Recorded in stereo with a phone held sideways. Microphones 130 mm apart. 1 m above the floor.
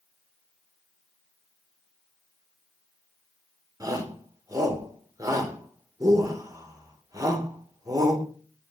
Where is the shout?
25° right (ahead or behind), 3.5 m.